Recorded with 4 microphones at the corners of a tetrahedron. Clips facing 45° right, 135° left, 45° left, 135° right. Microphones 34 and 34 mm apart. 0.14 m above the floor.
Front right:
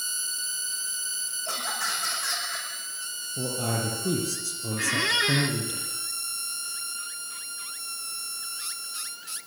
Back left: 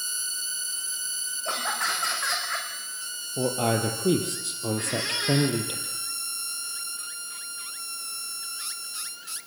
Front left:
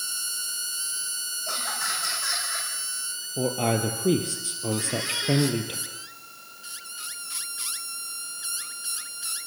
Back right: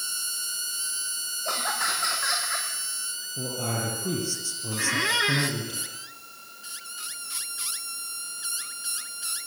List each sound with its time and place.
1.4 s laughter: 175° right, 8.5 m; by 2.7 s straight behind, 8.5 m
3.4 s a man speaking: 85° left, 4 m
4.8 s a squeak: 110° right, 3 m